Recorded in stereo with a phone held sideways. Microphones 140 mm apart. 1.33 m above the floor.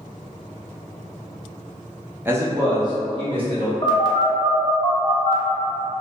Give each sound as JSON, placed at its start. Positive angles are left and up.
{"t": 2.2, "sound": "a man speaking", "side_deg": -15, "distance_m": 0.6}
{"t": 3.8, "sound": "a phone buzzing", "side_deg": 30, "distance_m": 0.6}